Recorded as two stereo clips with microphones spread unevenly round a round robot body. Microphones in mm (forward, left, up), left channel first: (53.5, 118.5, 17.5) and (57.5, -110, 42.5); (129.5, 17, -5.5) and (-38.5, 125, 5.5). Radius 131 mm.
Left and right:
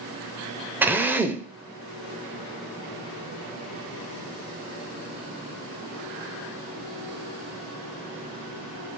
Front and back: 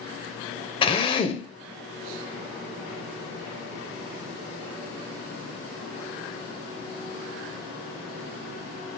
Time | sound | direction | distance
0.8 | a drill | straight ahead | 0.5 m